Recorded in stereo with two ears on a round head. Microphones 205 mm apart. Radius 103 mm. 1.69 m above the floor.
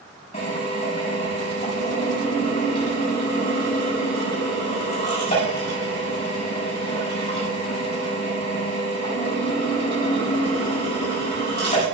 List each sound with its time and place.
0.3 s a drill: 25° left (ahead or behind), 6.5 m